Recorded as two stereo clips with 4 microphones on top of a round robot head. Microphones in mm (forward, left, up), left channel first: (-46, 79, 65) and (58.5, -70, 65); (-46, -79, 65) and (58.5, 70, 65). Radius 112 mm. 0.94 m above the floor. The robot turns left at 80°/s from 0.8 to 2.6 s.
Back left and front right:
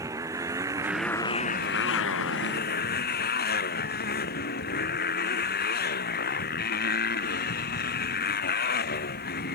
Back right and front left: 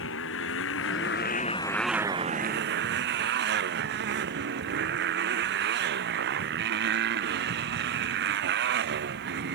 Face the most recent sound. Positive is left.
turn(degrees=85)